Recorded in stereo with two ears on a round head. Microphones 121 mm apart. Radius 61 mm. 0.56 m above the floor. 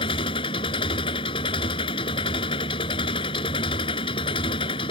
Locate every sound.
0.0 s an engine running: 40° left (ahead or behind)